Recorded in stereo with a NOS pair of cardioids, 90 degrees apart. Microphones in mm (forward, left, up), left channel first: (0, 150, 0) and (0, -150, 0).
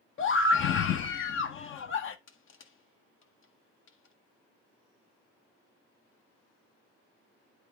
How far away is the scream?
About 0.7 m.